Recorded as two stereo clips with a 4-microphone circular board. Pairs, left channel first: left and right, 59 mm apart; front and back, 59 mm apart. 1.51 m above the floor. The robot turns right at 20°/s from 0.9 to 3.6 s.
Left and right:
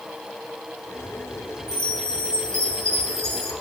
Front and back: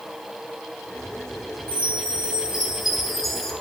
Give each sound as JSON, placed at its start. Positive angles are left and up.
{"t": 1.7, "sound": "a chime", "azimuth_deg": -115, "distance_m": 2.5}